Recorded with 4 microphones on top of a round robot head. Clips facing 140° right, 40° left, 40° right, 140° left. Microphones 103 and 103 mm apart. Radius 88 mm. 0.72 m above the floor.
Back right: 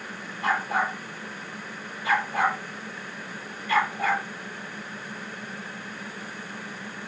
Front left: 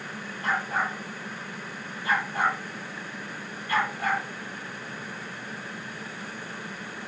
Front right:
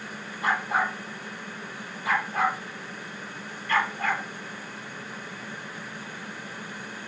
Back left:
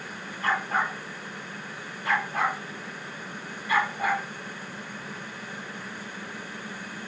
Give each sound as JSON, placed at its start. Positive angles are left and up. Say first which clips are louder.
{"t": 0.4, "sound": "a dog barking", "louder": "back right 3 dB, front right 1 dB", "azimuth_deg": -115, "distance_m": 8.0}